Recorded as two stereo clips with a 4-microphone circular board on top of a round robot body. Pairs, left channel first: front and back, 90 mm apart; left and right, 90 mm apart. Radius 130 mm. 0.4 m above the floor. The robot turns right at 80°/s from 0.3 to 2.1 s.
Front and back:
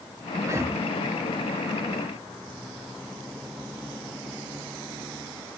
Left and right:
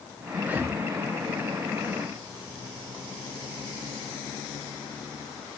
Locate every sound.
0.4 s breathing: 155° right, 0.6 m; by 0.8 s 125° right, 0.6 m